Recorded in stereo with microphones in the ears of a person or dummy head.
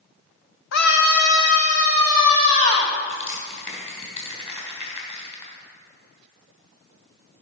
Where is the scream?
60° left (ahead or behind), 1.2 m; by 2.9 s 45° left (ahead or behind), 3 m.